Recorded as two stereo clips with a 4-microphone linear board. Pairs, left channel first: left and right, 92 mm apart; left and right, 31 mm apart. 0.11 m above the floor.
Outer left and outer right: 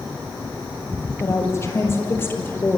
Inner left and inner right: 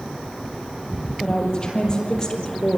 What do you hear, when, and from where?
1.2 s a woman speaking: 30° left (ahead or behind), 4 m; by 2.8 s 20° left (ahead or behind), 3 m